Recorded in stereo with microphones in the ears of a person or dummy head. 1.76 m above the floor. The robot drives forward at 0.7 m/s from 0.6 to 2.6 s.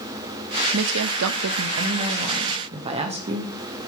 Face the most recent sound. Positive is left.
turn(degrees=-30)  # may be behind; listen again after turning